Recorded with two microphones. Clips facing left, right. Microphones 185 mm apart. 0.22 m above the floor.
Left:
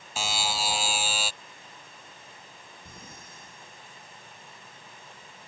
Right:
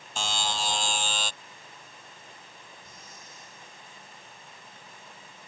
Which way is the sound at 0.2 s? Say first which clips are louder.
Left 1 dB; 10° left (ahead or behind).